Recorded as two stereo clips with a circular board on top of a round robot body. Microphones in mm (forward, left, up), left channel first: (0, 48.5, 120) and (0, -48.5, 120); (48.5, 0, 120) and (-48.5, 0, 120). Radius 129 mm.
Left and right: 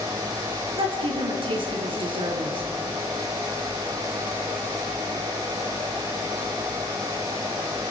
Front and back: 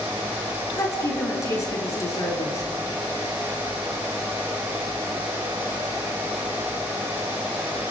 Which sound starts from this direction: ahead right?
A woman speaking, at 0.8 s.